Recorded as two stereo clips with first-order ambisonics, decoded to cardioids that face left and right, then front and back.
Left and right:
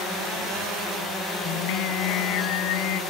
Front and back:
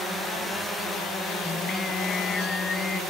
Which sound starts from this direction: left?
Singing, at 1.4 s.